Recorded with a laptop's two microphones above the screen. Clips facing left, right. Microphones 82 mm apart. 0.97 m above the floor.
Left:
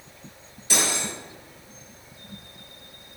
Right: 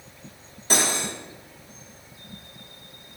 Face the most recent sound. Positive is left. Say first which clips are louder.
# right 2 dB
turn(degrees=-40)  # may be behind; listen again after turning